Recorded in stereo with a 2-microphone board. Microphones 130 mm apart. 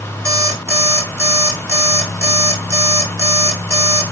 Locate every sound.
0.2 s an alarm clock: 20° right (ahead or behind), 0.9 m